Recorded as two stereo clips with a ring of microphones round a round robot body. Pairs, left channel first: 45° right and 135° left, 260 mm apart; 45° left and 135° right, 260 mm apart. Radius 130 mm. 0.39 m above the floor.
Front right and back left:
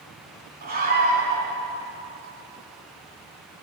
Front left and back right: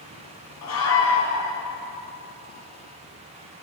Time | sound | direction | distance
0.6 | a scream | 80° left | 4 m